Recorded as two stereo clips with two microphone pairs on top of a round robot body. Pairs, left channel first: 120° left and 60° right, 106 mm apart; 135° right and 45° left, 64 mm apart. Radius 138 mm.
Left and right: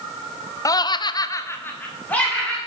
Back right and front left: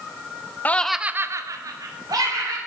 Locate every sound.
0.7 s laughter: 165° left, 0.9 m; by 2.6 s 40° left, 2.5 m